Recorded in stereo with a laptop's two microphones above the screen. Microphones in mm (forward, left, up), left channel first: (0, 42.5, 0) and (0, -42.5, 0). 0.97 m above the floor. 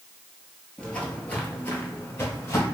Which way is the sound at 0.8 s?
10° left (ahead or behind).